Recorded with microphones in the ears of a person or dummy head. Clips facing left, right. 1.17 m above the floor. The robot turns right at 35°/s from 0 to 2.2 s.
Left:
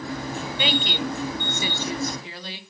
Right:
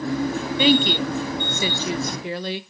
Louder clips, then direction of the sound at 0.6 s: Right 9 dB; 70° right (ahead or behind).